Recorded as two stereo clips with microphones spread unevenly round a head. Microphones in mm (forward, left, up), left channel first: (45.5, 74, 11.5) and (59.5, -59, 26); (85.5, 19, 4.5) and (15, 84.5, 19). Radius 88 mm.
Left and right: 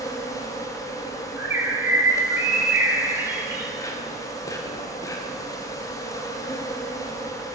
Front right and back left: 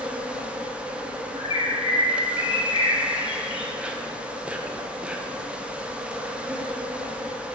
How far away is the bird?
About 1.5 m.